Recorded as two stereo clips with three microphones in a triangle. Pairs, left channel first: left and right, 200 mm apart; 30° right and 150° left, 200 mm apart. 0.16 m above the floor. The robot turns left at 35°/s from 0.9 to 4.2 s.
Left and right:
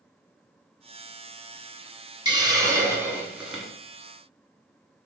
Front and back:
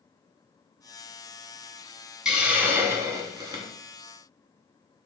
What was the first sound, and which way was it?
A hiss, 125° right.